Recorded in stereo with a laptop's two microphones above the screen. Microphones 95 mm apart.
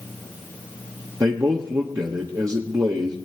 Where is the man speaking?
35° right (ahead or behind), 1.1 m.